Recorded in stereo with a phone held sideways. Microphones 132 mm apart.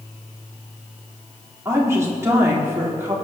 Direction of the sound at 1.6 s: 25° right (ahead or behind).